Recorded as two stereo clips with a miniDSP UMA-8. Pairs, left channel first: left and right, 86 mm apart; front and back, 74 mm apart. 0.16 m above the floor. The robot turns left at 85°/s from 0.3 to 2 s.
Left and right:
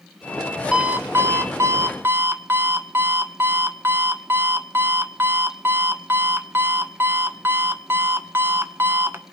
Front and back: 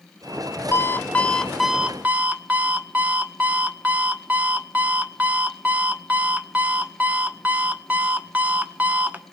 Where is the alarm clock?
20° right, 0.5 m; by 9.2 s 125° right, 0.5 m.